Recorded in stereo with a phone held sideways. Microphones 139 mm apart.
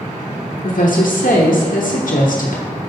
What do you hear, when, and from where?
0.6 s a woman speaking: 70° left (ahead or behind), 1.0 m